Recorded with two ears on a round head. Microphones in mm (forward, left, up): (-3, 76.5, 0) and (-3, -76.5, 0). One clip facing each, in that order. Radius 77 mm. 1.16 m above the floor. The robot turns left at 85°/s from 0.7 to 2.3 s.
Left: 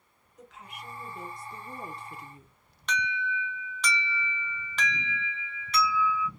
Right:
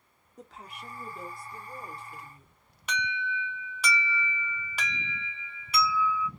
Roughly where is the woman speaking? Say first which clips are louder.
Right 1 dB; behind right.